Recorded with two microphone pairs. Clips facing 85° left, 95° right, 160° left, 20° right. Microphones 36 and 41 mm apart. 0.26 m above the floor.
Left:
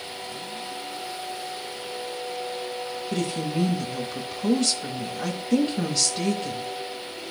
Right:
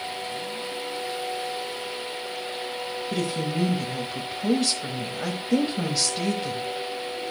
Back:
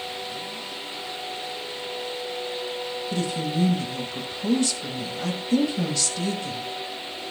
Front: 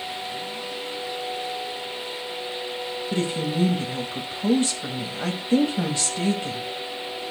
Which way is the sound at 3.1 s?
25° right.